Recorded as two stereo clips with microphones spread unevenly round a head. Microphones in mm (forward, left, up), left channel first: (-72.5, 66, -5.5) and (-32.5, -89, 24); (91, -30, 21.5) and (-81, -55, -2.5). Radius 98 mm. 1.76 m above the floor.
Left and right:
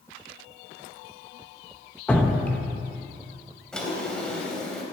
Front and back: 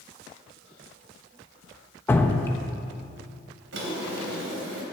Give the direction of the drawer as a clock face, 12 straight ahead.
6 o'clock.